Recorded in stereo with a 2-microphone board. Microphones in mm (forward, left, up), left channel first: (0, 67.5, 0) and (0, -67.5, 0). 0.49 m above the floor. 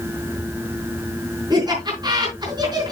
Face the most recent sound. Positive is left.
turn(degrees=-30)  # may be behind; listen again after turning